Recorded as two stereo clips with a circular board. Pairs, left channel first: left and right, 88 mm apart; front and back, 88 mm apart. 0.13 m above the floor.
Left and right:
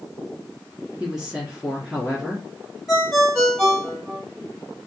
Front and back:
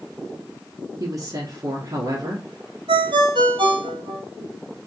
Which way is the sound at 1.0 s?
165° right.